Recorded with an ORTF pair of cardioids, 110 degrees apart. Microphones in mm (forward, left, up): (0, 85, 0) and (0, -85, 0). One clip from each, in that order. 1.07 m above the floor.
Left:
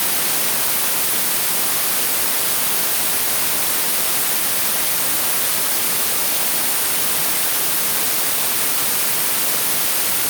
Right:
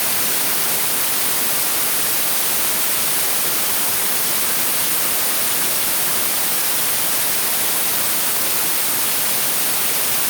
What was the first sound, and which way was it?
Only background noise.